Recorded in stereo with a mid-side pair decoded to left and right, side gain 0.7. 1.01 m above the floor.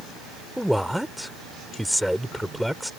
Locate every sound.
0.6 s a man speaking: straight ahead